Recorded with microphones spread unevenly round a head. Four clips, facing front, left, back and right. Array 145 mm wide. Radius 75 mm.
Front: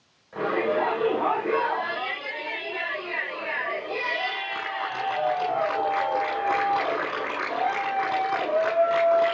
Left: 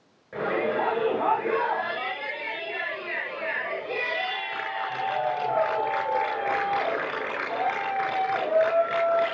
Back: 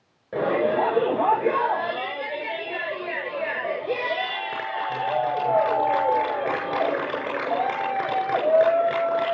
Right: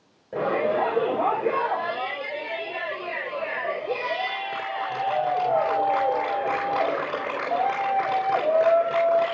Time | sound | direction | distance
0.3 | a shout | 155° right | 8.5 m